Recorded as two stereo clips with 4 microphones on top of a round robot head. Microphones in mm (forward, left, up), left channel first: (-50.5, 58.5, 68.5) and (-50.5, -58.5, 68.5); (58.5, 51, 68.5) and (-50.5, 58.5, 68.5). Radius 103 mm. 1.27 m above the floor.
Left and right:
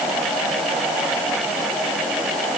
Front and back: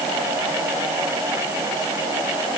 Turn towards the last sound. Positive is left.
No sound to turn to.